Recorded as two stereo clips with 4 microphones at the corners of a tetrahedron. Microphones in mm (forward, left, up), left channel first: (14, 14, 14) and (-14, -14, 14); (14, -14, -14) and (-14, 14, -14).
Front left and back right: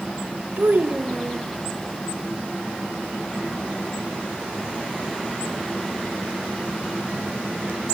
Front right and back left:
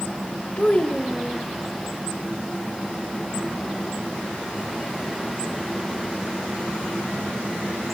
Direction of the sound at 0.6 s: 100° right.